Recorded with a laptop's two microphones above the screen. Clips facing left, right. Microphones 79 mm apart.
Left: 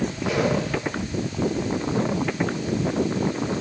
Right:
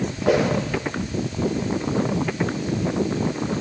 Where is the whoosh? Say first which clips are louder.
Right 5 dB; 60° right (ahead or behind), 7.5 m.